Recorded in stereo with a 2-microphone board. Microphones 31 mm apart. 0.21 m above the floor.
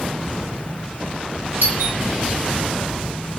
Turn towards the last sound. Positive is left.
turn(degrees=-65)  # may be behind; listen again after turning